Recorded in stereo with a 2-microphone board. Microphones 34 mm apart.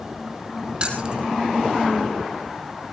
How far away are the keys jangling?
About 3.5 m.